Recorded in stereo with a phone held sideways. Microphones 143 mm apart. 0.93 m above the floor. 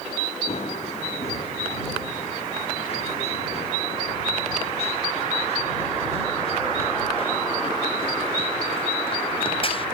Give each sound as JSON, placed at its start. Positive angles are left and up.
{"t": 0.5, "sound": "running footsteps", "side_deg": 50}